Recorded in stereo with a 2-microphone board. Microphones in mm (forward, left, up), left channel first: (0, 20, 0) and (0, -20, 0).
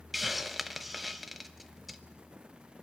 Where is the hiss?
5° right (ahead or behind), 0.8 m.